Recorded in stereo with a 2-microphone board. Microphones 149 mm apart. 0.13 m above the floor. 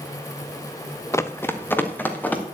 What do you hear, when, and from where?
1.1 s running footsteps: 20° left (ahead or behind), 0.8 m; by 2.4 s 10° left (ahead or behind), 2.5 m